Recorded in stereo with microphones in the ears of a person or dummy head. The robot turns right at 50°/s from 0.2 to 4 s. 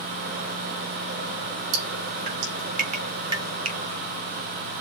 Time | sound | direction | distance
1.7 | dripping | 65° right (ahead or behind) | 3.5 m
3.6 | a finger snap | 30° right (ahead or behind) | 1.5 m